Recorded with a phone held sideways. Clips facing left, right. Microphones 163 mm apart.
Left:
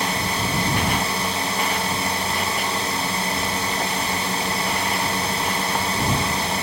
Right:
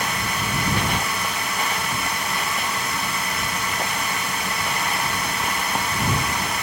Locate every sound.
0.0 s a drone: 30° left (ahead or behind)